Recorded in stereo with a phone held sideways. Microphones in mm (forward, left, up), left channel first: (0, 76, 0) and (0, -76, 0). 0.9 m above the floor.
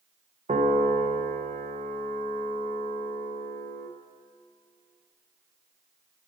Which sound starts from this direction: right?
A piano, at 0.5 s.